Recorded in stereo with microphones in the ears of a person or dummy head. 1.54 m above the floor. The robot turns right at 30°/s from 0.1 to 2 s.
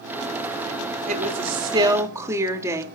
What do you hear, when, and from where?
1.1 s a woman speaking: 45° right (ahead or behind), 3 m; by 2.8 s 15° right (ahead or behind), 3 m